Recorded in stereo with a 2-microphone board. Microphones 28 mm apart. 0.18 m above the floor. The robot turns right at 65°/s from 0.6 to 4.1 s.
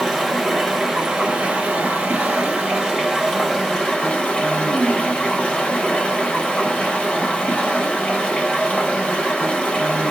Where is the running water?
175° left, 1.4 m; by 10.1 s 45° left, 1.4 m.